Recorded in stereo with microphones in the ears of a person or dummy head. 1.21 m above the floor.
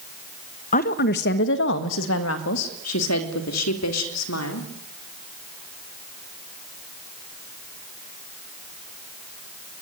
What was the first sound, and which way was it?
A woman speaking, 45° left (ahead or behind).